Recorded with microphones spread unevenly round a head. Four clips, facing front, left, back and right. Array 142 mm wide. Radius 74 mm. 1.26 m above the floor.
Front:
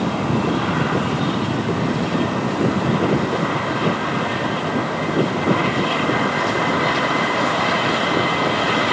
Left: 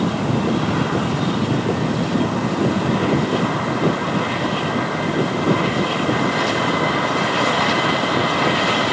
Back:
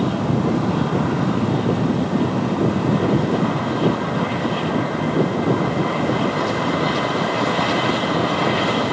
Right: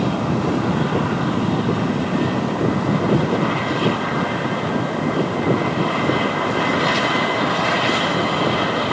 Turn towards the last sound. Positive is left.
No sound to turn to.